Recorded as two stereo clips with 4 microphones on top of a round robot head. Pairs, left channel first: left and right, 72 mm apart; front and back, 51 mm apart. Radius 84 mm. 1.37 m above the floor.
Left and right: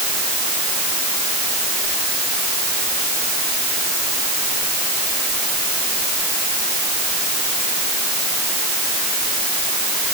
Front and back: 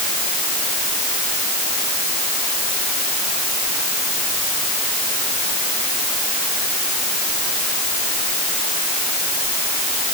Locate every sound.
Only background noise.